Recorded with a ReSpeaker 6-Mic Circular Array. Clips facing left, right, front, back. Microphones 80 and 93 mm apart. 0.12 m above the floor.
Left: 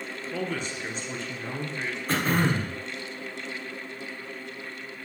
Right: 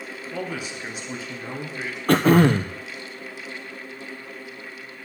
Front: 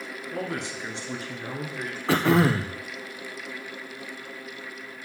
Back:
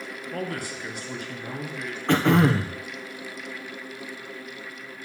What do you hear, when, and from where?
0.3 s a man speaking: 30° right, 1.7 m; by 2.0 s 10° right, 2 m
2.1 s throat clearing: 85° right, 0.8 m